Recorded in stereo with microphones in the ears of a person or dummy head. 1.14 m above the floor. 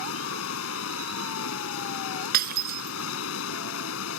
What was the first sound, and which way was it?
Running water, 85° left.